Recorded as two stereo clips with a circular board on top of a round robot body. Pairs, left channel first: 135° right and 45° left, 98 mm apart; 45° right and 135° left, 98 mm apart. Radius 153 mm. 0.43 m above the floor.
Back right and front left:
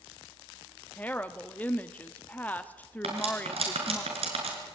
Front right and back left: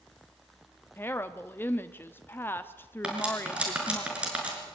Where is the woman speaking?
80° right, 1.0 m.